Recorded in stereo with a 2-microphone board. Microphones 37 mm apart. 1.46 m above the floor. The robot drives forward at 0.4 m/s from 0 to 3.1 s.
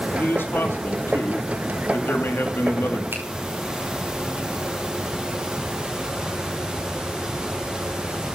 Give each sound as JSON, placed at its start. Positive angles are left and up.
{"t": 0.1, "sound": "a man speaking", "side_deg": 70, "distance_m": 3.0}
{"t": 3.1, "sound": "a finger snap", "side_deg": -85, "distance_m": 5.5}